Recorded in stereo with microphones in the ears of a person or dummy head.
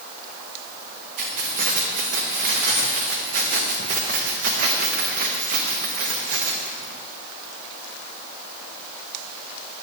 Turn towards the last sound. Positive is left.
turn(degrees=-50)  # may be behind; listen again after turning